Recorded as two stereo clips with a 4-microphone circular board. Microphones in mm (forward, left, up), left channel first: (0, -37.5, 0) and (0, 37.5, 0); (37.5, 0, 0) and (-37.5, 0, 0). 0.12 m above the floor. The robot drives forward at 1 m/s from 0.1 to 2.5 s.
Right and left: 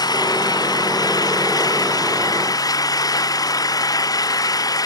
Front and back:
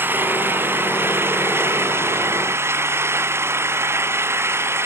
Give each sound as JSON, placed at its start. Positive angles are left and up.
{"t": 0.0, "sound": "an engine running", "azimuth_deg": -120}